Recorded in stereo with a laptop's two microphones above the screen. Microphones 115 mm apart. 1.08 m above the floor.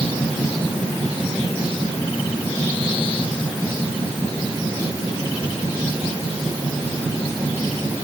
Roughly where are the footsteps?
No footsteps in this recording.